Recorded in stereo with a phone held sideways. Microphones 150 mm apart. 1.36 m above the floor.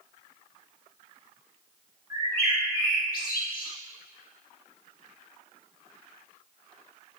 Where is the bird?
80° left, 1.6 m.